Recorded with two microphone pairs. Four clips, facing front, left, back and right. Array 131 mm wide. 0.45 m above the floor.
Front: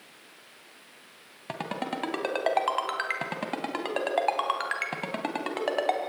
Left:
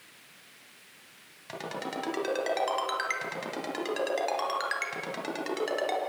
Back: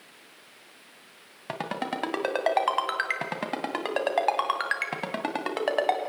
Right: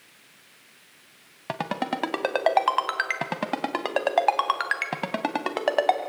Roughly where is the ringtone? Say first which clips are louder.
Right 8 dB, back 1 dB; right.